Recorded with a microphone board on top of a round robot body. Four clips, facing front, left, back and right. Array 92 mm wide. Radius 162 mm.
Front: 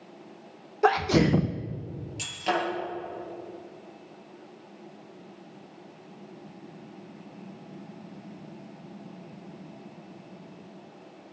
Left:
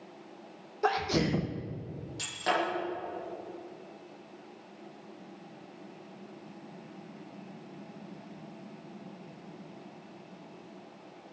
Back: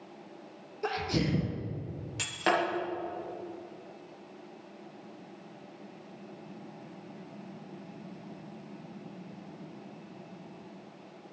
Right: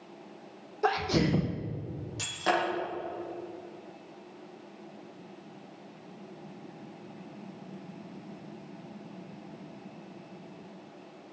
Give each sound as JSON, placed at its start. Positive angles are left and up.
{"t": 0.8, "sound": "a sneeze", "azimuth_deg": 0, "distance_m": 0.8}
{"t": 2.2, "sound": "breaking glass", "azimuth_deg": -170, "distance_m": 7.0}